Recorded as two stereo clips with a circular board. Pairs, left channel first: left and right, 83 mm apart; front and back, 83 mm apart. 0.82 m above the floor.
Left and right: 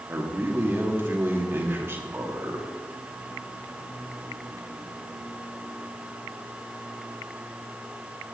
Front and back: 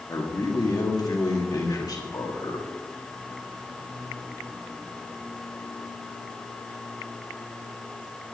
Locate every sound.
0.1 s a man speaking: 30° right, 2 m